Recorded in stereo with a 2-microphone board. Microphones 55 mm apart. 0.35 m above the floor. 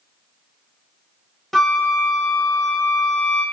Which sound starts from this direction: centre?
A flute, at 1.5 s.